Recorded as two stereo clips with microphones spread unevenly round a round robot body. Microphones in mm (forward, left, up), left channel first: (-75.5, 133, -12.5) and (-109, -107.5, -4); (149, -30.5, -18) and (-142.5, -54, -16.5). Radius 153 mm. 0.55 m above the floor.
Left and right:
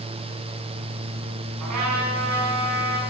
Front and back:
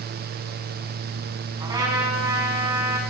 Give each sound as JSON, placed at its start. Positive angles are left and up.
{"t": 1.6, "sound": "a trumpet", "azimuth_deg": -100, "distance_m": 5.5}